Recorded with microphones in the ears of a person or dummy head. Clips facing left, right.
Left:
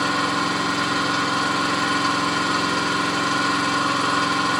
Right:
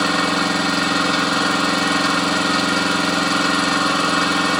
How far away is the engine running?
About 3 m.